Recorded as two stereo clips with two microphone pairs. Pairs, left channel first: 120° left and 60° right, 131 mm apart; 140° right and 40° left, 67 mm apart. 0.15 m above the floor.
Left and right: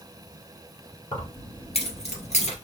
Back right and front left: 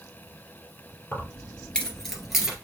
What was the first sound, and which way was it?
Keys jangling, 165° left.